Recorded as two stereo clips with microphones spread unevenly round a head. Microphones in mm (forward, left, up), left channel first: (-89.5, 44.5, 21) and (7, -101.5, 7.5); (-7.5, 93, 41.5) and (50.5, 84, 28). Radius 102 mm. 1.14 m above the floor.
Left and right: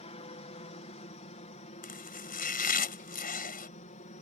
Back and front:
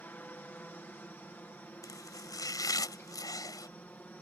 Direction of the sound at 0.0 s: 125° left.